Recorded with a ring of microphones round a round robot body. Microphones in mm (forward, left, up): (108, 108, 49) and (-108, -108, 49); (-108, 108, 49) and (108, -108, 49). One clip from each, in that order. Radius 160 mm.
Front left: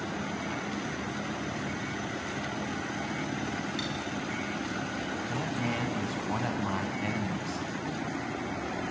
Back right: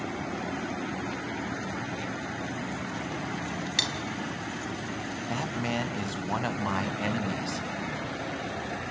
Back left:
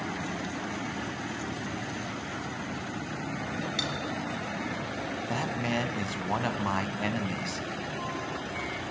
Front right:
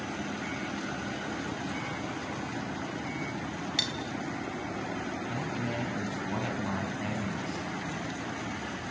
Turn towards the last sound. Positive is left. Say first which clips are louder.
# back right 4 dB, back left 7 dB
turn(degrees=165)